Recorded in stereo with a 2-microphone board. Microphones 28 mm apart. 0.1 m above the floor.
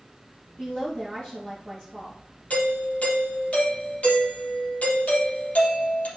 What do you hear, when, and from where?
0.6 s a woman speaking: 30° left (ahead or behind), 2.5 m
2.5 s a doorbell: 55° left (ahead or behind), 3.5 m